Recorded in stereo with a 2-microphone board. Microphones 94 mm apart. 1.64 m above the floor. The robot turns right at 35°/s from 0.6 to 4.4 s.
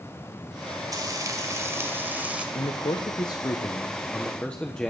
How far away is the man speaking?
About 1.2 m.